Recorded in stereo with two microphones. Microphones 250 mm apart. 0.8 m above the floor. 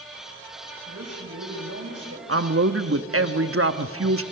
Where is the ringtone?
I don't hear a ringtone.